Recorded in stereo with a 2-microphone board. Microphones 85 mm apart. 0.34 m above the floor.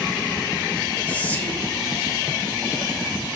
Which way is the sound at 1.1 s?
20° left (ahead or behind).